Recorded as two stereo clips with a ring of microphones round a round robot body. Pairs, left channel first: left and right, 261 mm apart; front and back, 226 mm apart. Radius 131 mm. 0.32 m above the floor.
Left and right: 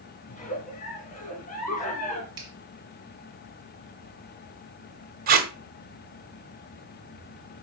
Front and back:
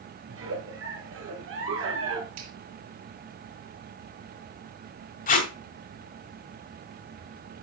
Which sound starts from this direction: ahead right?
Tape being pulled, at 5.3 s.